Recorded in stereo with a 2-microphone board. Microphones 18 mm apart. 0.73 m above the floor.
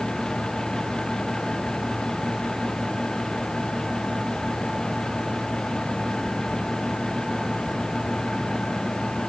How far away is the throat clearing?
No throat clearing in this recording.